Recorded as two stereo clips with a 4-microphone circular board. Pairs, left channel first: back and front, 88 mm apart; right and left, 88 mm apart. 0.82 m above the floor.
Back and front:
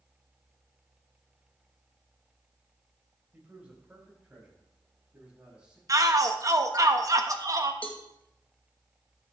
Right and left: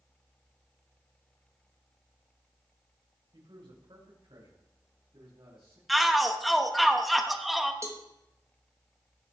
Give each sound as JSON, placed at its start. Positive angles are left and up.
{"t": 3.3, "sound": "a man speaking", "azimuth_deg": 75, "distance_m": 3.5}
{"t": 5.9, "sound": "a shout", "azimuth_deg": 0, "distance_m": 1.1}
{"t": 7.8, "sound": "a cowbell", "azimuth_deg": 115, "distance_m": 1.2}